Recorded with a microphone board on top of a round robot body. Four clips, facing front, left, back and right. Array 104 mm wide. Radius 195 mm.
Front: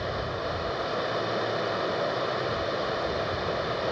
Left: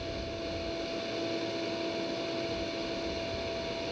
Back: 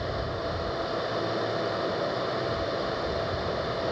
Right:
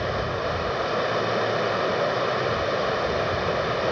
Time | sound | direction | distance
0.0 | running water | 85° right | ?